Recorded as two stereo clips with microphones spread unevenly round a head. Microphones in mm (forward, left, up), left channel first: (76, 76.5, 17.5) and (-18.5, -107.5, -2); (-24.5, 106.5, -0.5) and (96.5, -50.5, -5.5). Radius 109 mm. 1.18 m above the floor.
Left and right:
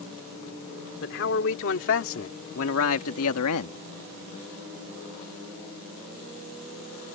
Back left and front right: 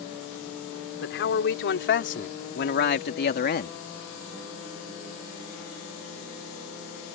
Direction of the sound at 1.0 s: 105° left.